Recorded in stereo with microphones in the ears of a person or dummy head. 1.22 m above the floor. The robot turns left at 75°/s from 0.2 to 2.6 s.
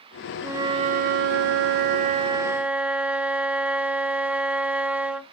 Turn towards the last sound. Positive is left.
turn(degrees=-170)